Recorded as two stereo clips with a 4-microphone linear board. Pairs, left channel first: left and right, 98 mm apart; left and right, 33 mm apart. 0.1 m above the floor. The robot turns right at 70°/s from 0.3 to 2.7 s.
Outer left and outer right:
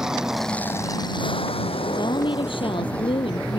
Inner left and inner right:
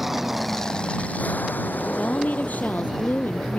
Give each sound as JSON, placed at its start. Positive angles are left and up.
{"t": 0.0, "sound": "an aircraft", "side_deg": -5}
{"t": 1.8, "sound": "a woman speaking", "azimuth_deg": 40}